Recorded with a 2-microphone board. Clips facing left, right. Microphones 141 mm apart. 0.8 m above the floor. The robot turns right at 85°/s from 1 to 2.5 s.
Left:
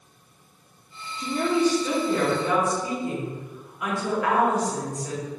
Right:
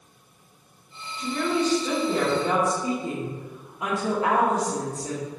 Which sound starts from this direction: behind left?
A woman speaking, at 1.2 s.